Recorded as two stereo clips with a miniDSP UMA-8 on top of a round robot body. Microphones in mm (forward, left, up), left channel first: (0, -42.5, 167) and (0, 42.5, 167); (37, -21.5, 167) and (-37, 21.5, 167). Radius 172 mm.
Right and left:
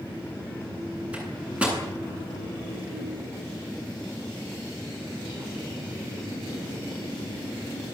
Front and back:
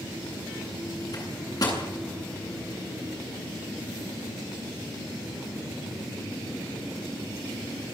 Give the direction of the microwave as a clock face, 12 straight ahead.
12 o'clock.